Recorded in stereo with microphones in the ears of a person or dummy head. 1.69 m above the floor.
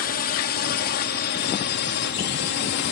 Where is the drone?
45° left (ahead or behind); by 2.9 s 55° left (ahead or behind).